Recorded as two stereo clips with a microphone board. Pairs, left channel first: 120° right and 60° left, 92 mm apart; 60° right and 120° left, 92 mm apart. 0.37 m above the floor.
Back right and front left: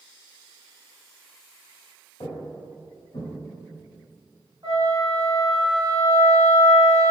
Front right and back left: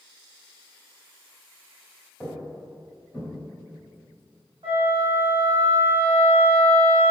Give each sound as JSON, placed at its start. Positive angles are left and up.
{"t": 2.2, "sound": "footsteps", "azimuth_deg": -155, "distance_m": 1.2}
{"t": 4.6, "sound": "a flute", "azimuth_deg": 100, "distance_m": 1.2}